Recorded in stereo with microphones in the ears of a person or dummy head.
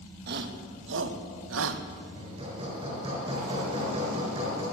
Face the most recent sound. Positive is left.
turn(degrees=-30)  # may be behind; listen again after turning